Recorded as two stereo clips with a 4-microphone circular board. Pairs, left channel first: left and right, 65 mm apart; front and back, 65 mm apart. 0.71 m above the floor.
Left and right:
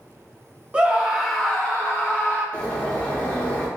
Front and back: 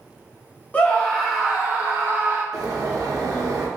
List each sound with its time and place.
0.7 s a scream: 35° right, 0.7 m; by 2.4 s 145° left, 1.0 m
2.5 s a bird: 160° left, 0.7 m